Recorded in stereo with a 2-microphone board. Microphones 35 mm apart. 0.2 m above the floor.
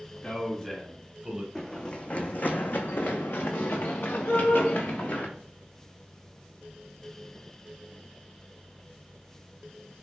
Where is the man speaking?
25° left (ahead or behind), 1.1 m; by 1.4 s 20° right (ahead or behind), 1.2 m.